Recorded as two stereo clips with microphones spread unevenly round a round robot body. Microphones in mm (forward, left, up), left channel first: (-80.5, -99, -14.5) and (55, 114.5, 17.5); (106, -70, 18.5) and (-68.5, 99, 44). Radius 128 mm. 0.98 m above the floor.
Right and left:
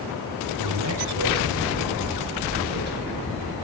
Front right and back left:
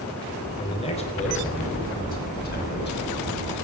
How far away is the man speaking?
About 3.5 m.